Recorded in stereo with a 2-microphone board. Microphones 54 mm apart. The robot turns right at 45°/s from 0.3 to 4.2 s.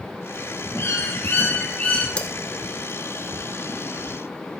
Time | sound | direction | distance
0.8 | a bird | 100° left | 2 m
2.2 | cutlery clinking | 20° left (ahead or behind) | 1.0 m